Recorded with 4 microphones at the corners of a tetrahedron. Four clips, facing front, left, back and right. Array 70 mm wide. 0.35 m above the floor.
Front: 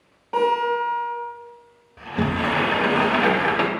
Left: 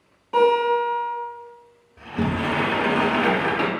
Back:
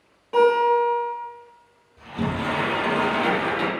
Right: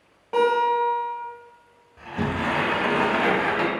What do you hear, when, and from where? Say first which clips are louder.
0.3 s a guitar: left 2 dB, back 3 dB; 65° right, 1.9 m
2.0 s a sliding door: left 2 dB, front 3 dB; 10° right, 0.5 m